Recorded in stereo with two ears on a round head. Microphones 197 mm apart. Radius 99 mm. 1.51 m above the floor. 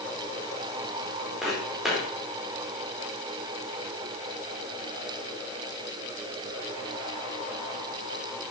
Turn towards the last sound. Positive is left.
turn(degrees=-5)  # may be behind; listen again after turning